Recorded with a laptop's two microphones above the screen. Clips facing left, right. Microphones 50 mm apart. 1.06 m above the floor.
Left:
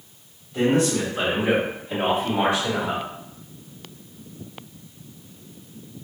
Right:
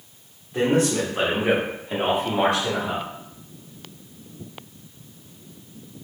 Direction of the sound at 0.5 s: 35° right (ahead or behind).